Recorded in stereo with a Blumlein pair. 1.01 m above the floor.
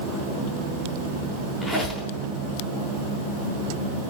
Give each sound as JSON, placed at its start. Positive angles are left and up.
{"t": 1.6, "sound": "a squeak", "azimuth_deg": 15, "distance_m": 3.5}